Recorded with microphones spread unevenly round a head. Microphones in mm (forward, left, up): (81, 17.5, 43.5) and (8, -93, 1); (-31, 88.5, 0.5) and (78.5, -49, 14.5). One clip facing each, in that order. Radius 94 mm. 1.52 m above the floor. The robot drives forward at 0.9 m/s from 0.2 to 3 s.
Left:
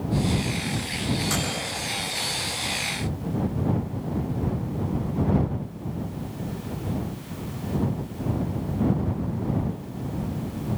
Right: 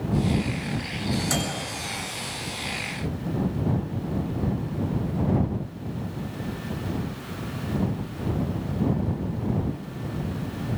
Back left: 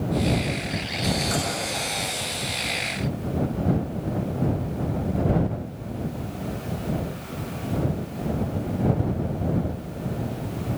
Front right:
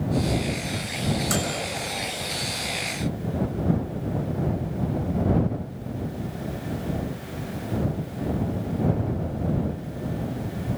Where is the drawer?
I don't hear a drawer.